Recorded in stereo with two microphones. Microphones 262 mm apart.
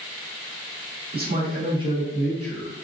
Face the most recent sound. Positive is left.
turn(degrees=15)  # may be behind; listen again after turning